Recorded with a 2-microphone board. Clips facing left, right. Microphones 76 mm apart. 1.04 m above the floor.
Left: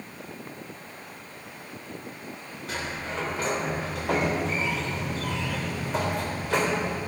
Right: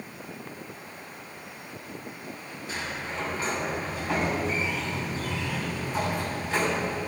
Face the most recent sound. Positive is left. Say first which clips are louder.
# left 2 dB
turn(degrees=85)